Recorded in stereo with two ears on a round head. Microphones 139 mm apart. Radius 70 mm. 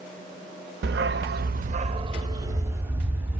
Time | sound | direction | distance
0.8 | a dog barking | 65° right (ahead or behind) | 0.6 m